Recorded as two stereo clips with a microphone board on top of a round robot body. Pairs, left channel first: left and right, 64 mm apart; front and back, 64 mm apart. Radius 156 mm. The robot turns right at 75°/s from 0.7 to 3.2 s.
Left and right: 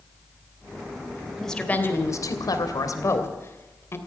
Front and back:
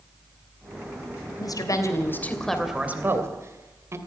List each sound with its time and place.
1.4 s a woman speaking: straight ahead, 2.5 m; by 4.0 s 140° left, 2.5 m